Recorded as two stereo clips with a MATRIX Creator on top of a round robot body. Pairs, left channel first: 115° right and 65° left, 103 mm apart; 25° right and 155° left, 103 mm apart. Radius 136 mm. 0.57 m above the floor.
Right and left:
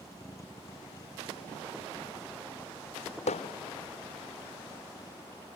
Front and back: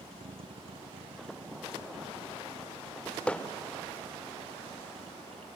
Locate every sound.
0.0 s a vehicle: 170° right
3.3 s hammering: 100° right